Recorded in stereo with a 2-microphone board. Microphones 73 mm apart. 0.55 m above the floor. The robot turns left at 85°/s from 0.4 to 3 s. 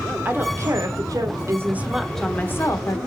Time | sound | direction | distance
0.2 | a woman speaking | 35° right | 1.1 m